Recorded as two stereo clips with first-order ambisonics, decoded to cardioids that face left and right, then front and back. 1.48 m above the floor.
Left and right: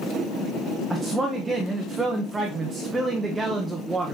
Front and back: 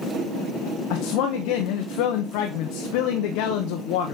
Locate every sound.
0.9 s a man speaking: 10° right, 0.9 m